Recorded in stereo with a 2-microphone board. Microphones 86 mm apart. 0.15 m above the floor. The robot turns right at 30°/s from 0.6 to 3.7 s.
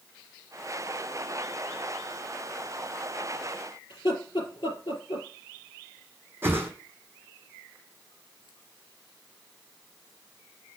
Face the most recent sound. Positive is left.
turn(degrees=-30)  # may be behind; listen again after turning